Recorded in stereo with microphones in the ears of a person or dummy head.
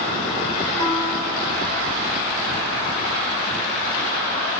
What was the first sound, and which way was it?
A piano, 65° right (ahead or behind).